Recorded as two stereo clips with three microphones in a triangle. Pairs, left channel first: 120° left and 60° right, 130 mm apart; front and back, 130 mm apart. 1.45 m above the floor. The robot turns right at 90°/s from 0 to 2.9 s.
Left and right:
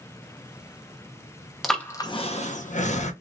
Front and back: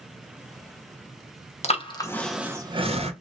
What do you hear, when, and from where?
1.6 s breathing: 30° left, 0.9 m; by 3.1 s 145° left, 0.9 m